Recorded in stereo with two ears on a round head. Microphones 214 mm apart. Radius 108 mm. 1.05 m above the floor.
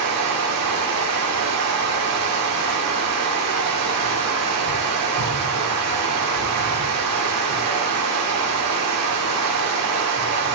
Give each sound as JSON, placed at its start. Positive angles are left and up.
{"t": 0.0, "sound": "running water", "side_deg": -85, "distance_m": 2.5}